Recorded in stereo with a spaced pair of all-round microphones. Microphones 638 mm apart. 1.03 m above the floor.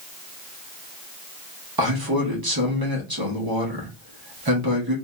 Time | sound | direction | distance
1.8 | a man speaking | 35° right (ahead or behind) | 0.9 m